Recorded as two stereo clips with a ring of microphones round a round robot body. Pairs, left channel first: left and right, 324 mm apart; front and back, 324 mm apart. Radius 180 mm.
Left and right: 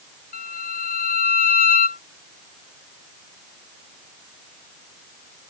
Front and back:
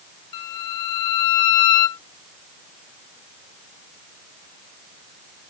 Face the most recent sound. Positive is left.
turn(degrees=25)